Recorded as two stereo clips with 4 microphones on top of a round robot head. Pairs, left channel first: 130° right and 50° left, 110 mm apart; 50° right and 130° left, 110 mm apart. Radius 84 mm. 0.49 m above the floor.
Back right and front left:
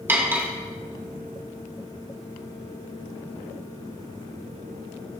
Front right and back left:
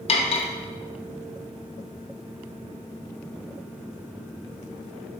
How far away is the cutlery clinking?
About 1.1 m.